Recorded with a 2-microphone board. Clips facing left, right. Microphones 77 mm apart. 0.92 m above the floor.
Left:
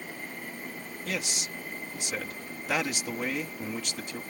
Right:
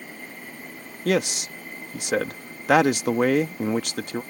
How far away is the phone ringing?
I don't hear a phone ringing.